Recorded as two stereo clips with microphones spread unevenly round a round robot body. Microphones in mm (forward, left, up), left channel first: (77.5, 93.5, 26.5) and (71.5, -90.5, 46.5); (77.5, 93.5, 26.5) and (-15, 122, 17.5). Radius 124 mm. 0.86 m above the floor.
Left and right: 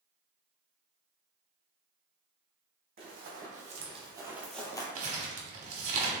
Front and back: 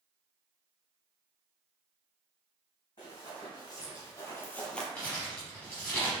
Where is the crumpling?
80° right, 0.8 m.